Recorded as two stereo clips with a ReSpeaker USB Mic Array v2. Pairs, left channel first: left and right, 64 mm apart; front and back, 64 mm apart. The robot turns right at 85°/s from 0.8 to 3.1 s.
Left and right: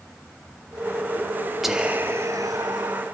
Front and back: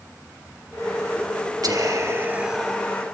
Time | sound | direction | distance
1.6 | whispering | 175° right | 2.5 m